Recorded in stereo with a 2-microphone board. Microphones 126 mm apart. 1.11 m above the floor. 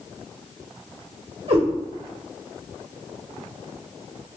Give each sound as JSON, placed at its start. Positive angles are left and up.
{"t": 1.5, "sound": "a cat meowing", "side_deg": -55, "distance_m": 2.0}